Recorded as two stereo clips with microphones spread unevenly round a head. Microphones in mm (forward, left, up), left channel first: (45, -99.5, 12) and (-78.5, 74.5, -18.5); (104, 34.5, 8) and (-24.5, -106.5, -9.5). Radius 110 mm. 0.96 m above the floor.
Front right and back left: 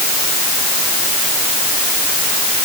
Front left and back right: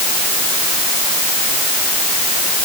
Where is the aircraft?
I don't hear an aircraft.